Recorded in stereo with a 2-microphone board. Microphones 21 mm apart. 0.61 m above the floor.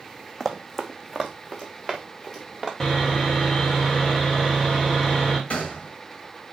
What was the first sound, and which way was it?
Running footsteps, 15° left (ahead or behind).